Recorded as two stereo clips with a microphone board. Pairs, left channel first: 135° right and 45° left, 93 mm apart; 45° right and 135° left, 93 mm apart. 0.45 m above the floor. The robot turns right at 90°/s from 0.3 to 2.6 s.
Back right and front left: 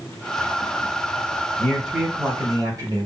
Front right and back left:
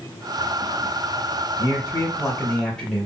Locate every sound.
1.6 s a man speaking: 60° right, 1.4 m; by 3.1 s 30° left, 1.4 m